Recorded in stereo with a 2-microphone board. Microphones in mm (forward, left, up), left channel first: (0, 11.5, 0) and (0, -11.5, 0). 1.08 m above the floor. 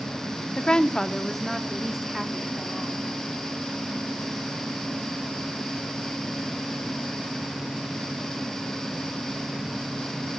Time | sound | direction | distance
0.6 | a woman speaking | 45° left (ahead or behind) | 0.9 m